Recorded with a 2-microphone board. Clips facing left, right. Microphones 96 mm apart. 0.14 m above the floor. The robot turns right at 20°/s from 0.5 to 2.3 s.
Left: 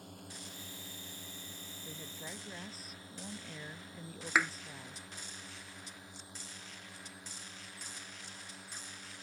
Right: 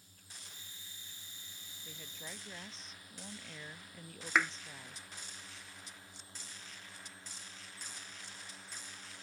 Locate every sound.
0.0 s a drone: 65° left (ahead or behind); by 9.2 s 15° left (ahead or behind)
1.9 s a woman speaking: 15° left (ahead or behind); by 5.0 s 5° left (ahead or behind)
4.3 s a thud: 5° left (ahead or behind)